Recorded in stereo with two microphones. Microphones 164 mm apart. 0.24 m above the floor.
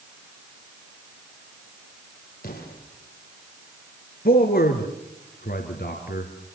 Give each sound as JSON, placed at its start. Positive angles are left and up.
{"t": 2.4, "sound": "an explosion", "side_deg": 70, "distance_m": 9.0}
{"t": 4.2, "sound": "a man speaking", "side_deg": 70, "distance_m": 3.5}